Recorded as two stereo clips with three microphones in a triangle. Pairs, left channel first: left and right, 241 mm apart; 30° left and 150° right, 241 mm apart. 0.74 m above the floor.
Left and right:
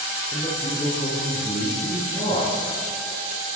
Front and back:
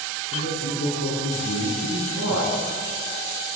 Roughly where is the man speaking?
Ahead.